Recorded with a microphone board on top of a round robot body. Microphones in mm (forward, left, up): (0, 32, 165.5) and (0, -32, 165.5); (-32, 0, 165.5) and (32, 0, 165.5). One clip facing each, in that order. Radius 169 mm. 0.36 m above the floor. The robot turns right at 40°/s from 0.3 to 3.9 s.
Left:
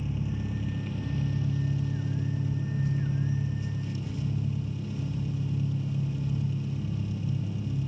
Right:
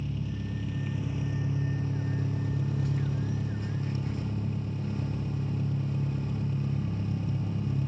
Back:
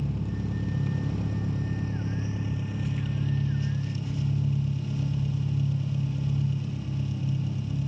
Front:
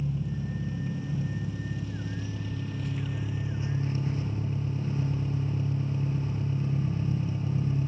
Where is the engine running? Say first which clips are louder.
Left 2 dB, back 1 dB; 165° left, 0.9 m; by 7.9 s 55° right, 0.9 m.